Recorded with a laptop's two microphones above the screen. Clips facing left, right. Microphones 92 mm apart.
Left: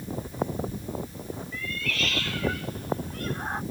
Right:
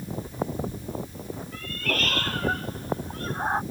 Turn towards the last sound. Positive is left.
turn(degrees=-30)  # may be behind; listen again after turning